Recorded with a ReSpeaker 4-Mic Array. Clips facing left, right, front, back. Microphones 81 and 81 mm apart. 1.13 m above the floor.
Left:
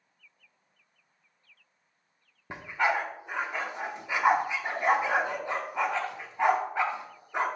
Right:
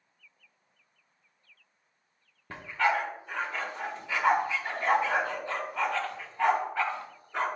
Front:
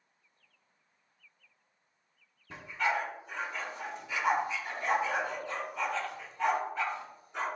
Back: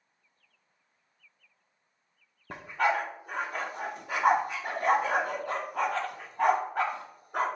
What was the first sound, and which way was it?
A dog barking, 160° left.